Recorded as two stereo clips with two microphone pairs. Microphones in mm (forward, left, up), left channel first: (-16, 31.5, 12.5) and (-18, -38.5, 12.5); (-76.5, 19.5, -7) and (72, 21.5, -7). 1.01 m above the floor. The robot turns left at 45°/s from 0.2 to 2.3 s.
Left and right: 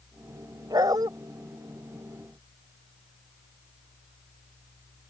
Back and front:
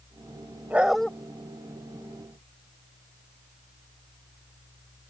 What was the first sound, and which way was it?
A dog barking, 80° right.